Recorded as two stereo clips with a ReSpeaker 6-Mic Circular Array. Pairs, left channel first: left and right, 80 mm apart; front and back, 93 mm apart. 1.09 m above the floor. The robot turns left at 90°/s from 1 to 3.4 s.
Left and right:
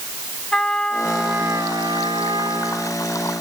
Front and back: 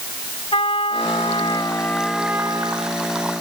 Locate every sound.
0.5 s a trumpet: 10° left; by 3.0 s 170° right